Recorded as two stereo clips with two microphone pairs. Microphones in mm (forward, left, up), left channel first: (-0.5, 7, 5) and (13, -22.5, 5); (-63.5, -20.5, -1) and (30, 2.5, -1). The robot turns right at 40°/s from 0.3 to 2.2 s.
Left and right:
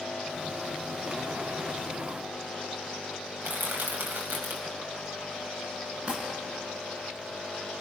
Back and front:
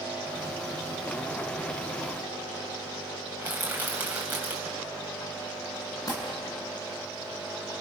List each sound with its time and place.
3.4 s crushing: 55° right, 3.5 m
6.1 s crumpling: 115° right, 6 m